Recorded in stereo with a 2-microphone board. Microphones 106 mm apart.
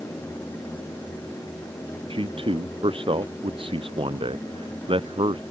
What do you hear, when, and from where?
2.1 s a man speaking: 55° right (ahead or behind)